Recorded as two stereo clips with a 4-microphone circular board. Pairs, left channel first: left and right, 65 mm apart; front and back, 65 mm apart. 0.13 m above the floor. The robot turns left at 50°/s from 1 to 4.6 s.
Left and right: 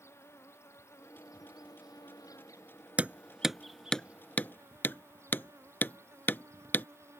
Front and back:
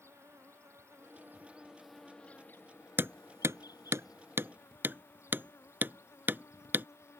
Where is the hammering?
145° right; by 6.9 s 135° left.